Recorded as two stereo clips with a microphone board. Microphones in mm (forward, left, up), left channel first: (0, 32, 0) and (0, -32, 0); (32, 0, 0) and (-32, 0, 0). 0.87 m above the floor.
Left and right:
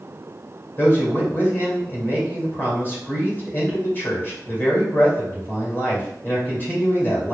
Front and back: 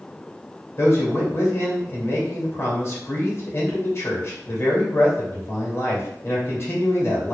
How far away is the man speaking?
About 2 m.